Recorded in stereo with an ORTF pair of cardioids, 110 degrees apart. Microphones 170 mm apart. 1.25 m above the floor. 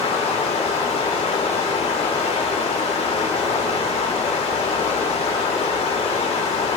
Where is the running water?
35° left, 2.5 m.